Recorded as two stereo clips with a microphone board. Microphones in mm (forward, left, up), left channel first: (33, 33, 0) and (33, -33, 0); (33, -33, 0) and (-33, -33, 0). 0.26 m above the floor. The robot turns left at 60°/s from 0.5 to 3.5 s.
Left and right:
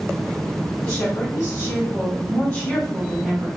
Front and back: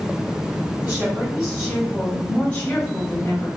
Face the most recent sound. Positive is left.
turn(degrees=-10)